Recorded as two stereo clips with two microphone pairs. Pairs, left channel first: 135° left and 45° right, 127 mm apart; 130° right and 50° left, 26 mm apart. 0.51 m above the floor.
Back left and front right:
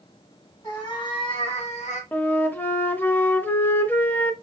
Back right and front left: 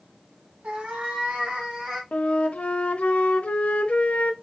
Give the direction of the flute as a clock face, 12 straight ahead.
5 o'clock.